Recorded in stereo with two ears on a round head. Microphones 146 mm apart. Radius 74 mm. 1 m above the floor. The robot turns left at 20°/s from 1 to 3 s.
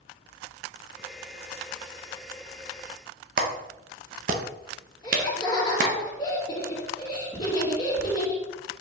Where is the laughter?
25° left (ahead or behind), 2.0 m.